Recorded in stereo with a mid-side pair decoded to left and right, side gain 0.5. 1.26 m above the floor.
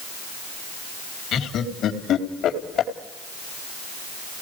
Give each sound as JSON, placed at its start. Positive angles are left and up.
{"t": 1.3, "sound": "laughter", "azimuth_deg": 60, "distance_m": 3.0}